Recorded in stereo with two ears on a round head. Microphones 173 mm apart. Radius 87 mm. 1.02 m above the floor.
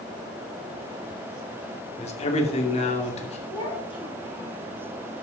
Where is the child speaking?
25° left (ahead or behind), 3.5 m.